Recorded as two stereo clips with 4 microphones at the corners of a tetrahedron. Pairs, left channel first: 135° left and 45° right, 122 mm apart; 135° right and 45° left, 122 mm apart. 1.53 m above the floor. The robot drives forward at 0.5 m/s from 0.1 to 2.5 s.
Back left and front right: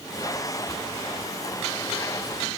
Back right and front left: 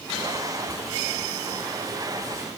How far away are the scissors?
I don't hear scissors.